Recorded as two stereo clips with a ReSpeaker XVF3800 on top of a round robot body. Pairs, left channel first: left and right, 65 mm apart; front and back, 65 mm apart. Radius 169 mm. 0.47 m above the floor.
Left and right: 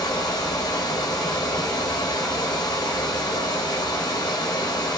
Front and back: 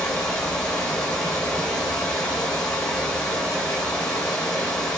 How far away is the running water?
About 0.7 m.